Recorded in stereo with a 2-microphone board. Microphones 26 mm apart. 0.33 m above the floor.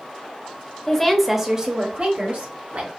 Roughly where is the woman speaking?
Centre.